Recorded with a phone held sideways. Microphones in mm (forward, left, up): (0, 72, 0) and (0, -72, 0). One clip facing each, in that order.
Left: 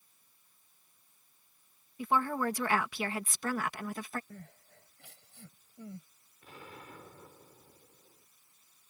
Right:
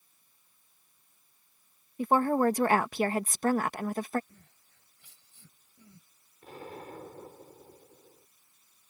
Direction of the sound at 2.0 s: 45° right (ahead or behind).